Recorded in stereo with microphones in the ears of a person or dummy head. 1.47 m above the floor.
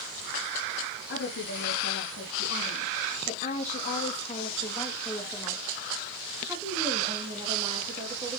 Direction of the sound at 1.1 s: 70° left (ahead or behind).